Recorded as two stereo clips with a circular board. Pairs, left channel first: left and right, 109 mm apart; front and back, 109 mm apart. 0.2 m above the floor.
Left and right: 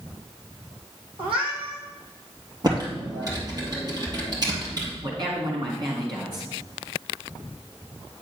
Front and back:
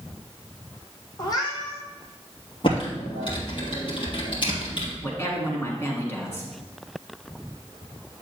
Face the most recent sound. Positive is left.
turn(degrees=-60)